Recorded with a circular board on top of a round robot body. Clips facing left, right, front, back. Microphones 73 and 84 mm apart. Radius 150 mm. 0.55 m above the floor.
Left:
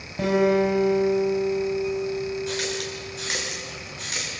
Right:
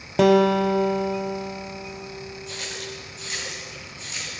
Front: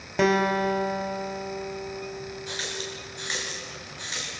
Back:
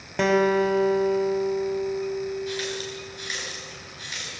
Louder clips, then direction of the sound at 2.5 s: Left 6 dB, back 4 dB; 60° left.